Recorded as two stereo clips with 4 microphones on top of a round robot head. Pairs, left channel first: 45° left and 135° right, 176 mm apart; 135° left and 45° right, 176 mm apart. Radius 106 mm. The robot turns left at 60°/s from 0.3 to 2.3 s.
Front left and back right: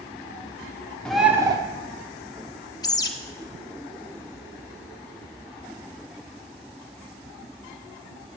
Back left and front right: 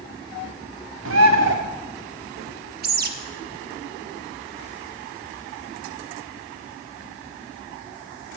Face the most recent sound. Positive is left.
turn(degrees=-20)